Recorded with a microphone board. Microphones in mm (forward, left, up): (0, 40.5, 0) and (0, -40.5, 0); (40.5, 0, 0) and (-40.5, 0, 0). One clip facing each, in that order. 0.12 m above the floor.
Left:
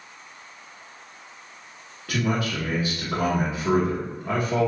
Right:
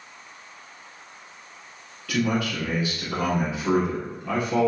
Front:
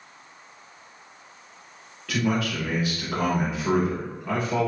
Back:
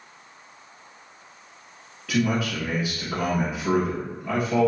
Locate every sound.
2.1 s a man speaking: 105° left, 1.1 m